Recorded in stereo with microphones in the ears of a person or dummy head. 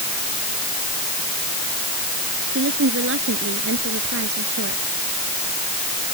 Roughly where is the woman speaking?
Right.